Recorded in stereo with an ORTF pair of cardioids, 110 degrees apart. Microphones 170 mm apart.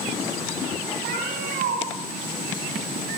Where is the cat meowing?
70° right, 5.5 m.